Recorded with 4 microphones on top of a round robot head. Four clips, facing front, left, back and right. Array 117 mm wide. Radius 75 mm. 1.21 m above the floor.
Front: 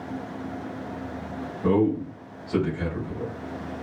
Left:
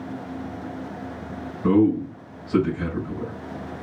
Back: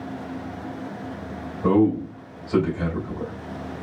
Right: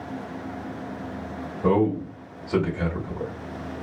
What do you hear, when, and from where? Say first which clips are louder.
1.6 s a man speaking: left 3 dB, back 3 dB; 100° right, 2 m